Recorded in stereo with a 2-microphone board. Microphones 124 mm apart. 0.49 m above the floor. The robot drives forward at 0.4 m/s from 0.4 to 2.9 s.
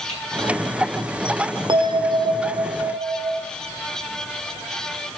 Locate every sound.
0.1 s typing on a keyboard: 55° left (ahead or behind), 4.5 m
1.7 s a bell: 40° right (ahead or behind), 0.6 m; by 3.4 s 45° right (ahead or behind), 0.5 m